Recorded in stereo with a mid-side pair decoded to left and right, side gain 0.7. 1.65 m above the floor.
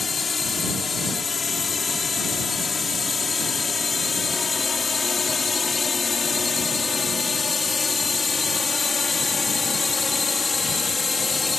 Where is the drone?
25° left; by 11.6 s 20° left.